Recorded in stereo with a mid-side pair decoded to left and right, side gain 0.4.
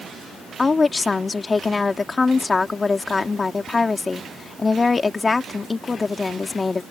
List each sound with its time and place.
0.6 s a woman speaking: 35° left